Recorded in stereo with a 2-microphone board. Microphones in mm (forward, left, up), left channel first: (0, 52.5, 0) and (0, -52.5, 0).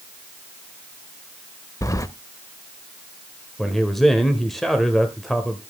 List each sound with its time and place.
1.8 s keys jangling: 30° left (ahead or behind), 0.6 m
3.6 s a man speaking: centre (ahead or behind), 1.2 m